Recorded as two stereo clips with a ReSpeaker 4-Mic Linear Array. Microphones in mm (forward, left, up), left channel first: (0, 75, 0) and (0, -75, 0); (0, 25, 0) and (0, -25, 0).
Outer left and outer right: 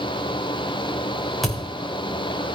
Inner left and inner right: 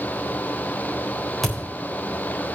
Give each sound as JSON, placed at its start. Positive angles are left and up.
{"t": 1.4, "sound": "a thud", "side_deg": 0, "distance_m": 5.0}